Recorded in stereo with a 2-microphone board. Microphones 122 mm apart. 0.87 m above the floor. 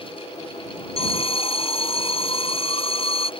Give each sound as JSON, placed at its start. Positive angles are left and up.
{"t": 1.0, "sound": "an alarm", "side_deg": 50}